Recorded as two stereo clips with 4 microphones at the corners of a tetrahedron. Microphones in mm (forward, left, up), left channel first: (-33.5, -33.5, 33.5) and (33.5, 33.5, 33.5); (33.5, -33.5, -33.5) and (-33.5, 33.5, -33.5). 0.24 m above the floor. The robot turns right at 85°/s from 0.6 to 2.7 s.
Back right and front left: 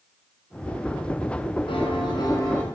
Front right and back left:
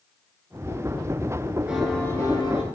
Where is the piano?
145° right, 1.6 m; by 2.6 s 60° right, 1.6 m.